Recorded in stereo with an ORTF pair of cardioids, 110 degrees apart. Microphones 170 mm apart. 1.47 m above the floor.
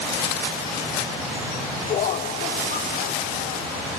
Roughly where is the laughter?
Ahead left.